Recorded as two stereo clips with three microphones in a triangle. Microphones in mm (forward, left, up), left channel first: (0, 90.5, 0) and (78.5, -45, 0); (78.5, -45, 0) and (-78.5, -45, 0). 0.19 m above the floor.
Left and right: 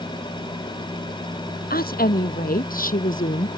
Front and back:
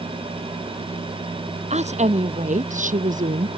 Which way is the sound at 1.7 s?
135° left.